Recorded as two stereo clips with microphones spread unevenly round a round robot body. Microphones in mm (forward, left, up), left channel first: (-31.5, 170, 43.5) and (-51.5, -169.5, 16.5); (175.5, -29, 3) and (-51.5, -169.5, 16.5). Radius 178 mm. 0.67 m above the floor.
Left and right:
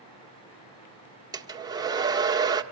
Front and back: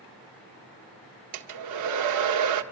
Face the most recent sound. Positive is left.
turn(degrees=-170)